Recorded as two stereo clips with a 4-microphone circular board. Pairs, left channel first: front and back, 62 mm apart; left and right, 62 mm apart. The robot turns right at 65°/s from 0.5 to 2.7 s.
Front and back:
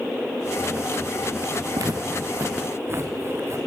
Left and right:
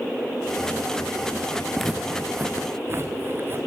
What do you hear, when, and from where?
1.8 s footsteps: 175° left, 3.5 m; by 3.6 s 145° right, 4 m